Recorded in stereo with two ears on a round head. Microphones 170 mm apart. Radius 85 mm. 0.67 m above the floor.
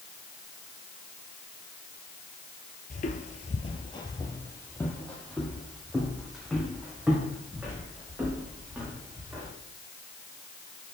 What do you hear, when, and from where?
2.9 s footsteps: 45° left (ahead or behind), 0.8 m; by 9.5 s 10° right (ahead or behind), 3.5 m